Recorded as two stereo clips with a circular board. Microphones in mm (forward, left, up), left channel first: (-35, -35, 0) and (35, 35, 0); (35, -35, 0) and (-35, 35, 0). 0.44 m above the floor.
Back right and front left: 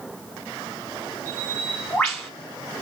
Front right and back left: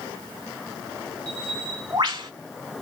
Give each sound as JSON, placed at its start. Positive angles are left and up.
{"t": 1.3, "sound": "a bird", "azimuth_deg": 145, "distance_m": 1.3}